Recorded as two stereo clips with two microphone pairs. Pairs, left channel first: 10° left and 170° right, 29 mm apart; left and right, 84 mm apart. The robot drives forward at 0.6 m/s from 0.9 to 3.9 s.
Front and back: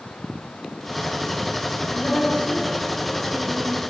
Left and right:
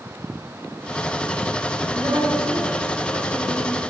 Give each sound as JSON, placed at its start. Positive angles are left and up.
{"t": 1.9, "sound": "a woman speaking", "azimuth_deg": -45, "distance_m": 3.0}